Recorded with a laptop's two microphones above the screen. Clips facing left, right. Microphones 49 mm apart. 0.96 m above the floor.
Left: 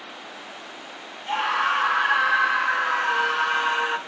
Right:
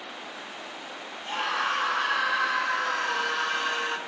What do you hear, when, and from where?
1.3 s a scream: 20° left (ahead or behind), 4.5 m